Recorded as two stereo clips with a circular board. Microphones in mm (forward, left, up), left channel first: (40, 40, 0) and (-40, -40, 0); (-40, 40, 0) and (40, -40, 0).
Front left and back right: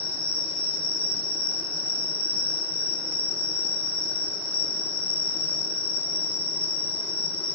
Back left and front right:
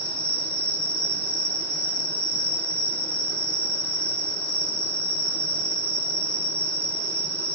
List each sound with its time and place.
0.0 s an insect: 145° right, 0.9 m